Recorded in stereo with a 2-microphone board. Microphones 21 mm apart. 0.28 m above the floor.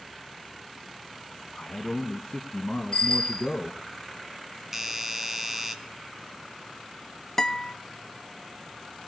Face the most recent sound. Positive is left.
turn(degrees=25)  # may be behind; listen again after turning